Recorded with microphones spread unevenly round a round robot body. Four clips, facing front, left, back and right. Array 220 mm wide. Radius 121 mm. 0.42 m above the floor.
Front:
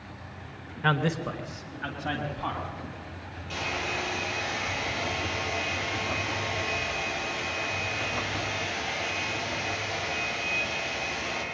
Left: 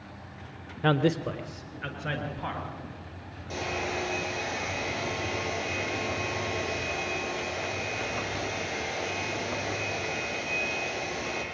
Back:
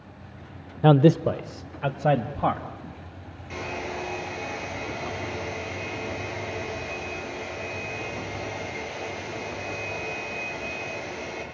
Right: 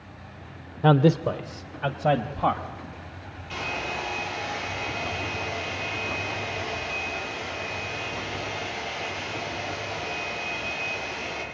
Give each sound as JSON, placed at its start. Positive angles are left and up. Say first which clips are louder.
{"t": 0.8, "sound": "a man speaking", "louder": "right 6 dB, back 10 dB", "azimuth_deg": -160, "distance_m": 1.0}
{"t": 3.5, "sound": "a hair dryer", "louder": "even, even", "azimuth_deg": 120, "distance_m": 6.0}